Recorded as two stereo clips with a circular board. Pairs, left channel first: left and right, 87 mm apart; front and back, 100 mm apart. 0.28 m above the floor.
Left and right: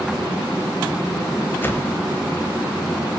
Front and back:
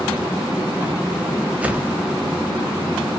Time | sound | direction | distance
1.6 | a whoosh | 120° left | 1.3 m